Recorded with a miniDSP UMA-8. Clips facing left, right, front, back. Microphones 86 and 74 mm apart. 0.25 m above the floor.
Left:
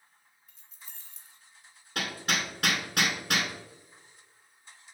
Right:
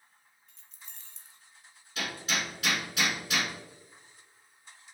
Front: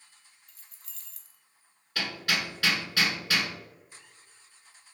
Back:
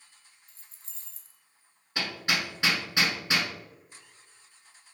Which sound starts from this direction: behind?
Keys jangling, at 0.5 s.